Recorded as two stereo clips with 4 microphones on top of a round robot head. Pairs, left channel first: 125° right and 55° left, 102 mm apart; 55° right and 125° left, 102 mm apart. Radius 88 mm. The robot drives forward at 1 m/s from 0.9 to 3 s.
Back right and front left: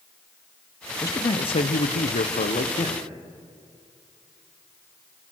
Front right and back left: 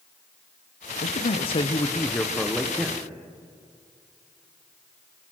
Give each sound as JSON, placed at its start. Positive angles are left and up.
{"t": 1.0, "sound": "a man speaking", "azimuth_deg": -60, "distance_m": 1.0}